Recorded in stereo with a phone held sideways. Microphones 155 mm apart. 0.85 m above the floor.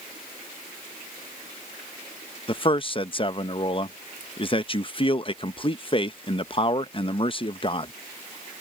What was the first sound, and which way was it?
A man speaking, 35° left (ahead or behind).